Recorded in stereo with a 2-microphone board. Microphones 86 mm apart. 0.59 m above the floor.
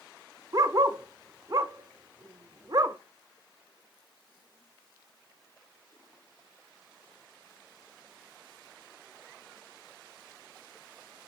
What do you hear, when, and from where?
0.5 s a dog barking: 45° right (ahead or behind), 0.6 m